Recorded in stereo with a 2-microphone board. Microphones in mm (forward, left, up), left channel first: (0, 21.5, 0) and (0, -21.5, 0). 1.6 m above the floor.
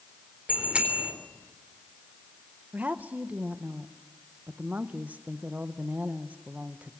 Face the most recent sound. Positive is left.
turn(degrees=-40)  # may be behind; listen again after turning